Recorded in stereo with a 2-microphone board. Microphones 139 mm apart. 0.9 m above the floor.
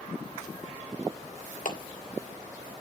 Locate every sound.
1.6 s a clap: 65° left (ahead or behind), 1.6 m